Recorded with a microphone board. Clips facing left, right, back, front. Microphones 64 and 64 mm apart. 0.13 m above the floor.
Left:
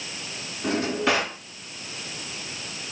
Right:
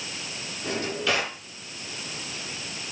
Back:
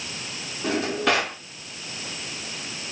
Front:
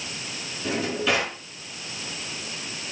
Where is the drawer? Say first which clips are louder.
Left 4 dB, back 2 dB; 145° left, 7 m.